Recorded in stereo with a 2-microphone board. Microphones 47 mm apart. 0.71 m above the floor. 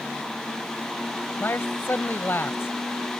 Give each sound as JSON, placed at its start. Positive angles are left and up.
{"t": 1.4, "sound": "a man speaking", "side_deg": 65}